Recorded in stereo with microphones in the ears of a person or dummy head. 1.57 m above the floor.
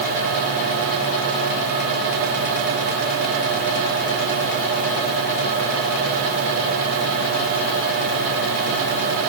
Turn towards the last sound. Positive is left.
No sound to turn to.